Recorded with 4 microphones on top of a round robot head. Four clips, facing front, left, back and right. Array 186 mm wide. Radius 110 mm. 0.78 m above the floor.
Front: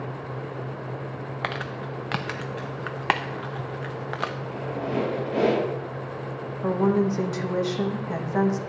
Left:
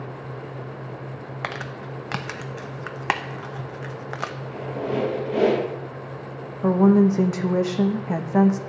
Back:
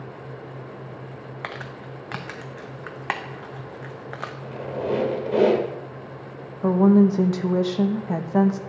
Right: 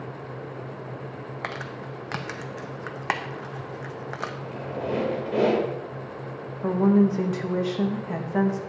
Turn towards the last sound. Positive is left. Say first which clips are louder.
# left 4 dB, back 6 dB
turn(degrees=135)